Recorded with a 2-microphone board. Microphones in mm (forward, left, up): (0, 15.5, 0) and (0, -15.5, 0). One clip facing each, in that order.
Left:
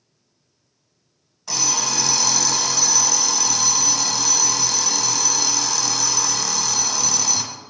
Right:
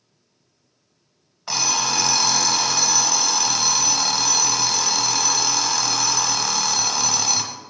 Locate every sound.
1.5 s an alarm clock: 35° right (ahead or behind), 1.0 m